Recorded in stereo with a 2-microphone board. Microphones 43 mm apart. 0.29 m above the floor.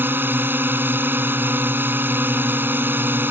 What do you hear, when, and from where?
0.0 s a drone: 55° right (ahead or behind)